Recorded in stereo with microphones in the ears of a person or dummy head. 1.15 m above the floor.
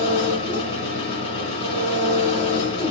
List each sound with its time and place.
0.0 s an engine running: 35° left (ahead or behind), 2.5 m